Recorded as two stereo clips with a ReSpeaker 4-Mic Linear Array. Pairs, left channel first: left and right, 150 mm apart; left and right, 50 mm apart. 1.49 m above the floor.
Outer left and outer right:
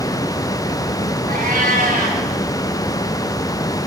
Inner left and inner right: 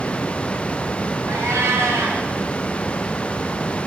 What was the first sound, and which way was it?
A cat meowing, 75° right (ahead or behind).